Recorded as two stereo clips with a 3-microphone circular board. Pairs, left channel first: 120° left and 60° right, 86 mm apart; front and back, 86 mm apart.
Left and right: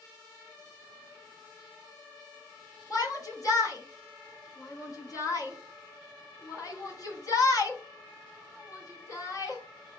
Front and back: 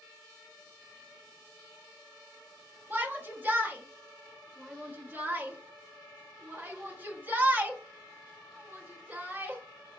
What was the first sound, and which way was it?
A shout, 125° left.